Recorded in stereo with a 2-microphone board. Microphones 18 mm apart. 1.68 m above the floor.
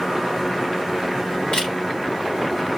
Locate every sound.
1.5 s a camera shutter: 80° left, 3 m